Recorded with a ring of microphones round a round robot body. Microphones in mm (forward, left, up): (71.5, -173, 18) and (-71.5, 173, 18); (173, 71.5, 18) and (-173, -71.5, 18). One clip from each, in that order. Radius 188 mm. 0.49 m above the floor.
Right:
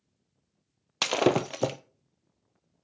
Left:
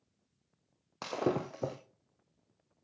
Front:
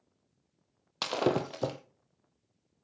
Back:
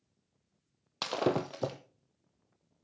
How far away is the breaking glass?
About 0.8 m.